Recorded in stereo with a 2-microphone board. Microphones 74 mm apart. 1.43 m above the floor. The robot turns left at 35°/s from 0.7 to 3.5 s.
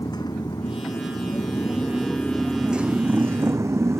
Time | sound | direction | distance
0.0 | a motorcycle | 60° left | ?